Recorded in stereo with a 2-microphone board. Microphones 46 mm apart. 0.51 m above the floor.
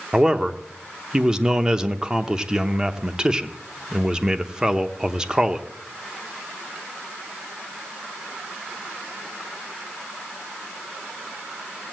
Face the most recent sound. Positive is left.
turn(degrees=-15)  # may be behind; listen again after turning